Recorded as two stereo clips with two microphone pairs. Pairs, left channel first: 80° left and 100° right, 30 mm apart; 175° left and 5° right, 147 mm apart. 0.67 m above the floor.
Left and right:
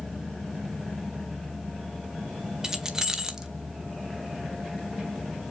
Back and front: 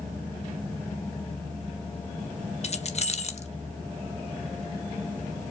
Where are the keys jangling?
165° right, 0.5 m.